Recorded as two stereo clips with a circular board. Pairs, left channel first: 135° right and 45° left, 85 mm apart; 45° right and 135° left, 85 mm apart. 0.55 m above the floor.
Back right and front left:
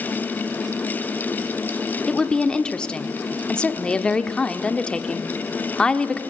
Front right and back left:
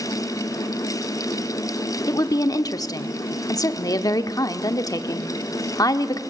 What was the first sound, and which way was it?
A woman speaking, 60° right.